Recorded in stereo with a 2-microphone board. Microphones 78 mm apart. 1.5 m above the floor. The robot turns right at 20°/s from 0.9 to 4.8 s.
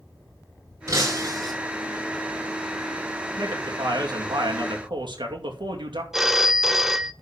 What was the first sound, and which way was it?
Breaking glass, 40° right (ahead or behind).